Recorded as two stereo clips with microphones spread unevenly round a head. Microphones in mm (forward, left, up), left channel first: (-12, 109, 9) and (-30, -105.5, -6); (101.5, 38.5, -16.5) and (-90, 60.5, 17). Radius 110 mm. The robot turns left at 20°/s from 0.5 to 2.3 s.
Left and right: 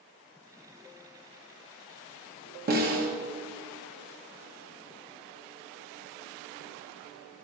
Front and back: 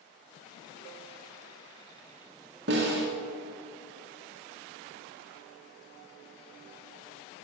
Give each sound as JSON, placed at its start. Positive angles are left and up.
{"t": 2.7, "sound": "a snare drum", "azimuth_deg": -140, "distance_m": 1.1}